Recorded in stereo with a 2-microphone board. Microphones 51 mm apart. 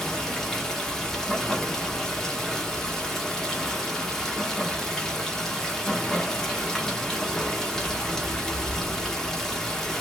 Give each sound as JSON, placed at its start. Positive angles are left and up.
{"t": 0.0, "sound": "running water", "side_deg": 10, "distance_m": 0.9}